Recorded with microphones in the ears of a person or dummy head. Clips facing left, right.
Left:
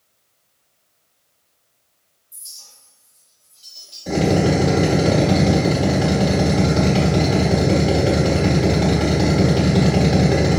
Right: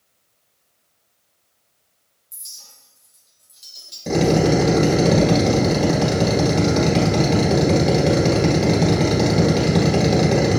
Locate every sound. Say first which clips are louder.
2.3 s a clink: even; 25° right (ahead or behind), 0.8 m
4.1 s a drill: right 1 dB; 35° right (ahead or behind), 1.7 m